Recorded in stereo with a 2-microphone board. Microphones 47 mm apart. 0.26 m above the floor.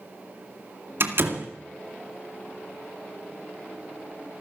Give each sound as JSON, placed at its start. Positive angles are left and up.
{"t": 1.0, "sound": "a door slam", "side_deg": -55, "distance_m": 2.0}